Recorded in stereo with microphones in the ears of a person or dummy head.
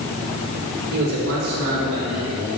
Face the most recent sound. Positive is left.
turn(degrees=-75)  # may be behind; listen again after turning